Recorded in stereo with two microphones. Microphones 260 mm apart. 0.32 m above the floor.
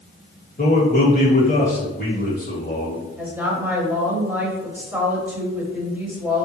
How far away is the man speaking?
About 1.3 m.